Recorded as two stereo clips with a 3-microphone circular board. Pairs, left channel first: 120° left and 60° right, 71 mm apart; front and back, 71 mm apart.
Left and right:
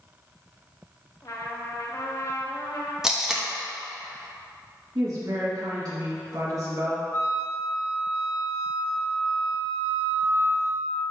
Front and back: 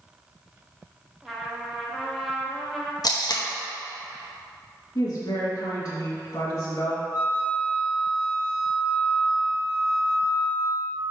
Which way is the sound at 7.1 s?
60° left.